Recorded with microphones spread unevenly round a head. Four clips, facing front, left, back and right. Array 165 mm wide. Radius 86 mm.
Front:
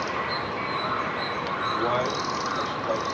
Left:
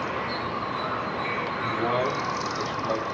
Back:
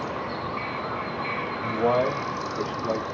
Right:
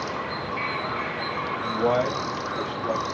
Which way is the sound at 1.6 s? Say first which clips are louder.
Right 3 dB, back 4 dB; 170° right.